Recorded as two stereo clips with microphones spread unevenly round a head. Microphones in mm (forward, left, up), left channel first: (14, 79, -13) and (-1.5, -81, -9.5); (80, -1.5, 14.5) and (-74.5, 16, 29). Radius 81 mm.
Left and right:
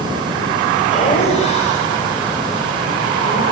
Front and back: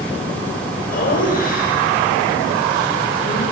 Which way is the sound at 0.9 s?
30° left.